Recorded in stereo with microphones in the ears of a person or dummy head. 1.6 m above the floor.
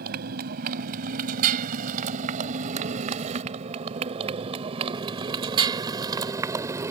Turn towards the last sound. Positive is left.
turn(degrees=-15)  # may be behind; listen again after turning